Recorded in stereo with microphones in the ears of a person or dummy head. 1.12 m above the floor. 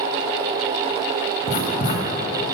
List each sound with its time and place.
1.5 s writing: 45° left (ahead or behind), 1.7 m